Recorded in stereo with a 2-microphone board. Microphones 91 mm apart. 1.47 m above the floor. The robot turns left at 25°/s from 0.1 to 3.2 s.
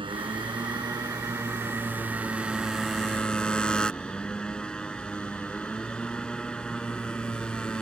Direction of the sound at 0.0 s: 115° right.